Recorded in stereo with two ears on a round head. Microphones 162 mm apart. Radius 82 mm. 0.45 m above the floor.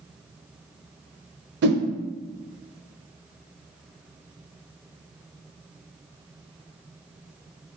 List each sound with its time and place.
1.6 s a whoosh: 60° right (ahead or behind), 0.5 m